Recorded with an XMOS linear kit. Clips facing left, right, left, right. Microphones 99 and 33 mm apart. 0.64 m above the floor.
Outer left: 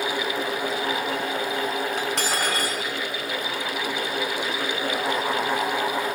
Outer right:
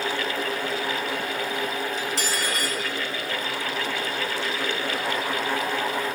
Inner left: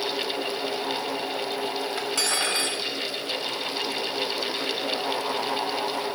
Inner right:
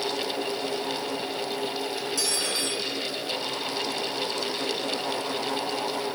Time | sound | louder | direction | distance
2.0 | cutlery clinking | outer left 2 dB, inner left 5 dB | 65° left (ahead or behind) | 2 m